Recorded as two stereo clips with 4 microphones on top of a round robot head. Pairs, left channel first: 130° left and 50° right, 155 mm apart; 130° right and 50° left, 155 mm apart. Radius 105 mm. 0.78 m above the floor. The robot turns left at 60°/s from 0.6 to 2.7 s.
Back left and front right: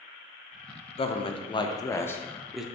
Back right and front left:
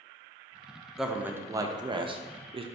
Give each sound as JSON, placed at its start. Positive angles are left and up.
{"t": 1.0, "sound": "a man speaking", "azimuth_deg": 135, "distance_m": 0.5}